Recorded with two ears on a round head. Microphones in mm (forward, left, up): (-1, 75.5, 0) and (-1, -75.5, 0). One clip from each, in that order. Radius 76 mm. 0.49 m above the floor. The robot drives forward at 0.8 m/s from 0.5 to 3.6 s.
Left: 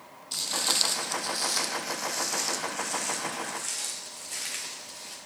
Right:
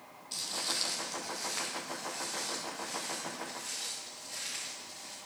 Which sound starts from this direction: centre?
Footsteps, at 0.3 s.